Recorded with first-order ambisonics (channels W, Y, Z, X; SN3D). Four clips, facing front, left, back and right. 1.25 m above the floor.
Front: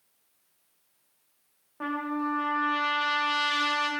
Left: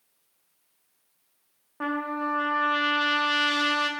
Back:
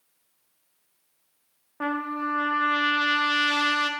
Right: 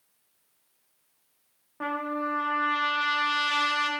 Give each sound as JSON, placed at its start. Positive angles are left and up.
{"t": 1.8, "sound": "a trumpet", "azimuth_deg": 155, "distance_m": 0.7}